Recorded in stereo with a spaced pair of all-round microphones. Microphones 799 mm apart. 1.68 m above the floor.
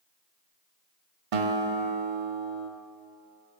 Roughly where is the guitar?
Right.